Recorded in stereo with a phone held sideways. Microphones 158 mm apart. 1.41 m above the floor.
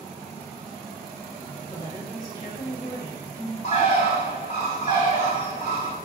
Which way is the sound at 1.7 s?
35° left (ahead or behind).